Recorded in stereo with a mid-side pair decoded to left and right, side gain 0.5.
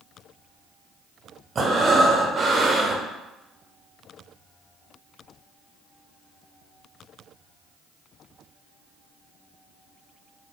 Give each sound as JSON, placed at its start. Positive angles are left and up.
{"t": 1.6, "sound": "breathing", "azimuth_deg": -35, "distance_m": 0.6}